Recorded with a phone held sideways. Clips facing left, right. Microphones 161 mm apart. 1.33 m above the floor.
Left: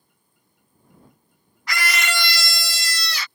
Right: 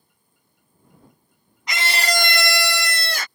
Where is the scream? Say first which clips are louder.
Right 2 dB; 20° right (ahead or behind); by 3.3 s 45° right (ahead or behind).